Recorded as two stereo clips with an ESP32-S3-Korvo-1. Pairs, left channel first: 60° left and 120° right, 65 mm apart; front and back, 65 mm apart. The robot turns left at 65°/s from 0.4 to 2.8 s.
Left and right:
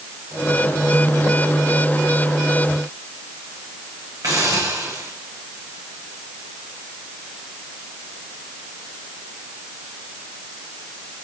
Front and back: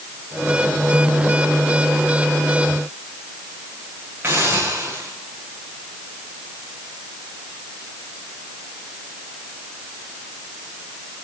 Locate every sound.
4.2 s a hiss: 130° right, 7 m